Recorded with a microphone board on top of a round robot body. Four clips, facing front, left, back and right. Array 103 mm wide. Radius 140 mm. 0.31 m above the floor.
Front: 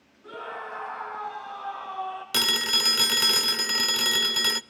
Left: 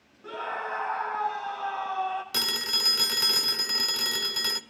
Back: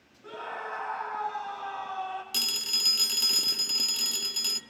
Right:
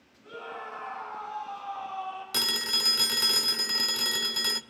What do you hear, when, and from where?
0.2 s a scream: 100° left, 3 m
2.3 s a phone ringing: 5° left, 1.0 m